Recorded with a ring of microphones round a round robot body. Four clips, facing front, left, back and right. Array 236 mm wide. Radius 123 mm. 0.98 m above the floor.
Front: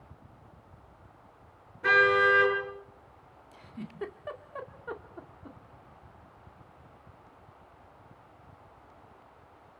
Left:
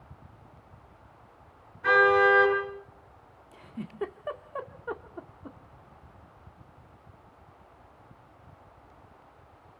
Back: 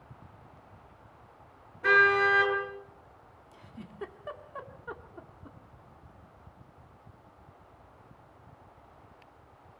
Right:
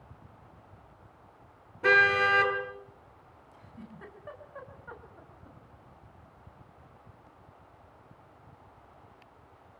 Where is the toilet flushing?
No toilet flushing in this recording.